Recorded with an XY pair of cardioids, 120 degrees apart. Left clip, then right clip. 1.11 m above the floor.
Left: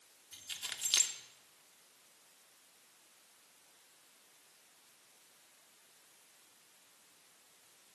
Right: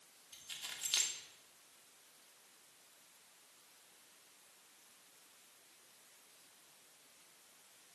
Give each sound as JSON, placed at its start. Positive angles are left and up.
{"t": 0.3, "sound": "keys jangling", "azimuth_deg": 30, "distance_m": 0.7}